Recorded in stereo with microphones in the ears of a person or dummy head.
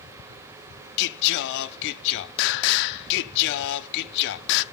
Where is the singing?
60° left (ahead or behind), 0.5 m.